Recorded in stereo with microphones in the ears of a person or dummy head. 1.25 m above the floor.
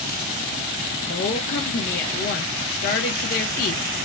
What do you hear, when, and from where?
1.1 s a woman speaking: 45° left (ahead or behind), 0.6 m